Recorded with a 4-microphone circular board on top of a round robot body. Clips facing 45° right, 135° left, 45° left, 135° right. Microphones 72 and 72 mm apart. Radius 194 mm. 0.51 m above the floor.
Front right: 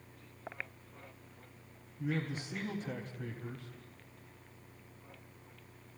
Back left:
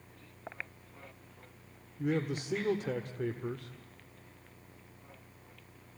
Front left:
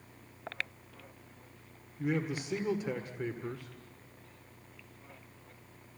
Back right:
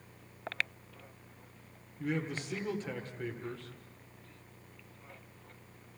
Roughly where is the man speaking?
Behind left.